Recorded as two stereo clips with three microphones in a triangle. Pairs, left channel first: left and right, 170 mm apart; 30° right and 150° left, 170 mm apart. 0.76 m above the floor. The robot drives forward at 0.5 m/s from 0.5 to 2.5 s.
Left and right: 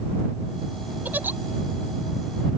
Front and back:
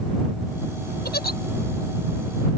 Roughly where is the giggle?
Ahead.